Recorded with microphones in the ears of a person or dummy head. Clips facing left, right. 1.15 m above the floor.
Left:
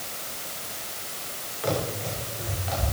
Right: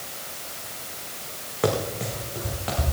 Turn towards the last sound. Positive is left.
turn(degrees=-60)  # may be behind; listen again after turning